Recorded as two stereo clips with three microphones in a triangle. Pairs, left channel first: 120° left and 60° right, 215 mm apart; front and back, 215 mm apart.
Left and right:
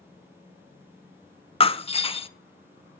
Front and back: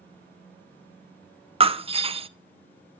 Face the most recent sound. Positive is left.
turn(degrees=150)